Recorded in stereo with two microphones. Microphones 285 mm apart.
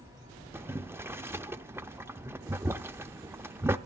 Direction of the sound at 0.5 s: 10° right (ahead or behind).